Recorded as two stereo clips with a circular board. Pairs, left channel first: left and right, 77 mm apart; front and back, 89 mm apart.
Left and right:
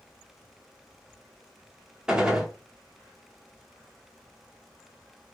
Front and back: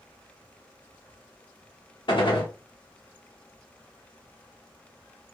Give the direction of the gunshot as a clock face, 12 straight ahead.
12 o'clock.